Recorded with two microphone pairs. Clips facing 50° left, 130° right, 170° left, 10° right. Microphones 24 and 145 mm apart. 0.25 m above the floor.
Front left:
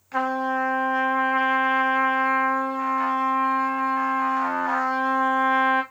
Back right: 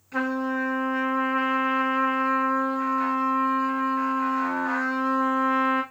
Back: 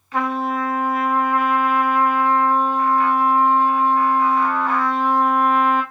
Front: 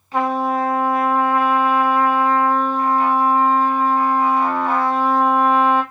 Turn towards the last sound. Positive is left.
turn(degrees=25)